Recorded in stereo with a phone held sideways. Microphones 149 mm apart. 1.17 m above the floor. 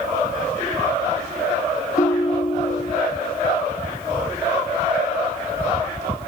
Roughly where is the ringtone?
Left.